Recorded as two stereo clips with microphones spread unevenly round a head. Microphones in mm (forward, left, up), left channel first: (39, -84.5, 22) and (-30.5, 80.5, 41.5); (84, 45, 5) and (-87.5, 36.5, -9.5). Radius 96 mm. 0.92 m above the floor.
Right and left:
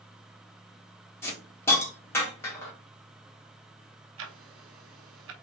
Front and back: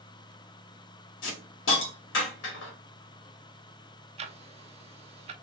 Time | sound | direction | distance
1.2 | a hiss | 10° left | 1.3 m
4.2 | ticking | 125° left | 0.6 m